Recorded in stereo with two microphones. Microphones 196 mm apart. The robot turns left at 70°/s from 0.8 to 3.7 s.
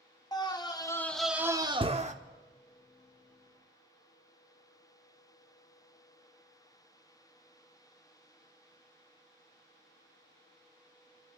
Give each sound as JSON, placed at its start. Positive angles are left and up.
{"t": 0.3, "sound": "a scream", "azimuth_deg": 30, "distance_m": 0.8}